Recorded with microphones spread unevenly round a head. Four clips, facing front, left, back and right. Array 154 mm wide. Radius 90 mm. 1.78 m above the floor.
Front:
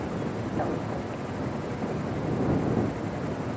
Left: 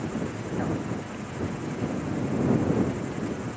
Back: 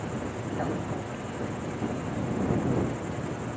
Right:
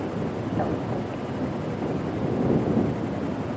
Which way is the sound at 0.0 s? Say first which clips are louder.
Right 3 dB, front 2 dB; 80° right.